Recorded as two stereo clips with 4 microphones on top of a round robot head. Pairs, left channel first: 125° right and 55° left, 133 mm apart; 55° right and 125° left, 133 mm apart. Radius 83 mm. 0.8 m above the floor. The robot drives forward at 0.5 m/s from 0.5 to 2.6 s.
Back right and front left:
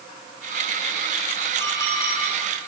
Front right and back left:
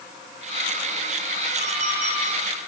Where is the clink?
165° left, 8 m.